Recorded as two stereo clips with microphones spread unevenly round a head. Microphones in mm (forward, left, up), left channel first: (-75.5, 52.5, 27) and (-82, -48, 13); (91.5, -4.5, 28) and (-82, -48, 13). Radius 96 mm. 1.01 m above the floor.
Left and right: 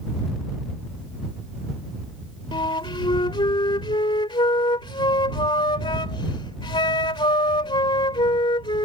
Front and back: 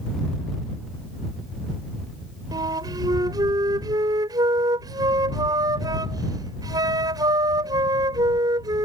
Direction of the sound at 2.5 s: 125° left.